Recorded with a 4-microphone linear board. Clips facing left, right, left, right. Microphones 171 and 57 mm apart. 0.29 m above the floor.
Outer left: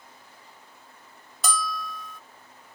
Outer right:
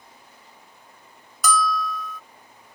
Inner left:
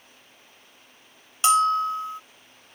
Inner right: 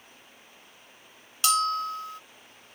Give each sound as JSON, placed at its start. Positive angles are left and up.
{"t": 1.4, "sound": "a bell", "side_deg": 30}